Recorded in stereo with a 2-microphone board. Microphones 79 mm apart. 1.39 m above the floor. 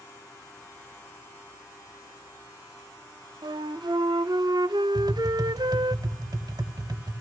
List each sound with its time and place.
3.4 s a flute: 70° right (ahead or behind), 0.5 m
5.0 s tapping: 60° right (ahead or behind), 1.3 m